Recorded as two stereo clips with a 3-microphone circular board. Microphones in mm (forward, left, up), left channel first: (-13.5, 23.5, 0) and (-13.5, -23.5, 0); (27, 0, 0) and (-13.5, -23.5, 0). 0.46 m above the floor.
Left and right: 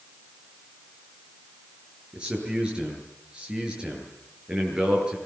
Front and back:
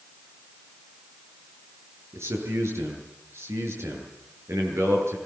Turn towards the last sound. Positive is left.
turn(degrees=-160)